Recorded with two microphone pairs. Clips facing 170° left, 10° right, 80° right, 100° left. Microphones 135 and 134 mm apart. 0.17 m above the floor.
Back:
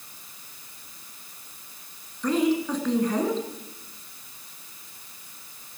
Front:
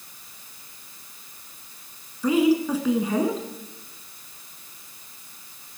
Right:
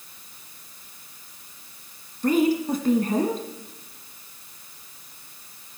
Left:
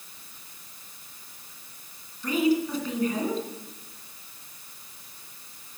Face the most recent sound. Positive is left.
turn(degrees=-90)